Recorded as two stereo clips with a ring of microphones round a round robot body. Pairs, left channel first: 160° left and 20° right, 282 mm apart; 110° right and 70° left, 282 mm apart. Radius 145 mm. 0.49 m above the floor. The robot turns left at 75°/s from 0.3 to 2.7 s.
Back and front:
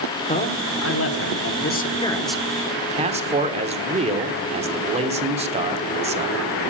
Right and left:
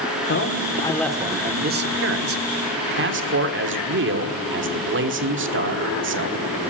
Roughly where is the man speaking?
Behind right.